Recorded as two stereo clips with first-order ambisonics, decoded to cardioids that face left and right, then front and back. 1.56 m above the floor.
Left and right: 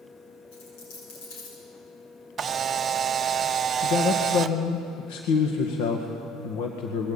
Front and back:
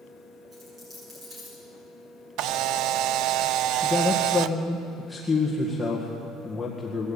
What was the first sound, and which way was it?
A dropped coin, 110° left.